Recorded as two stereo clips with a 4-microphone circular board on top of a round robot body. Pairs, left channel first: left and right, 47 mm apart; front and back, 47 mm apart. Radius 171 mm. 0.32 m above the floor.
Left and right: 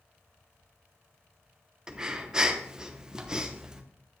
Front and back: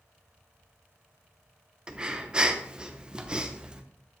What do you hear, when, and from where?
1.9 s breathing: 140° right, 1.1 m